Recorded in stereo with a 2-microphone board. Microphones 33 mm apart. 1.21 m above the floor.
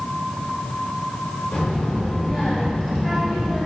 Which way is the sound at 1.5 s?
35° left (ahead or behind).